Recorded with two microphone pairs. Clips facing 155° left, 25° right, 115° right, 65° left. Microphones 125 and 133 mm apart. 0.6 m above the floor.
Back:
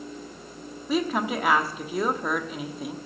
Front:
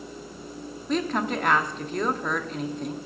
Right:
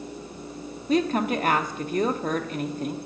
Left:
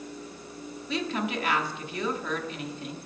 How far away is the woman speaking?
About 0.8 m.